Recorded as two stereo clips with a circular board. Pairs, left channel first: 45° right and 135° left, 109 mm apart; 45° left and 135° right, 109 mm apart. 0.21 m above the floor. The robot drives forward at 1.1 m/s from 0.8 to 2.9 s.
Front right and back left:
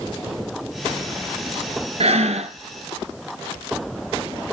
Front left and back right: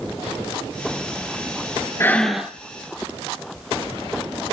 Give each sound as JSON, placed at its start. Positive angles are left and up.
{"t": 2.0, "sound": "breathing", "azimuth_deg": 110, "distance_m": 0.6}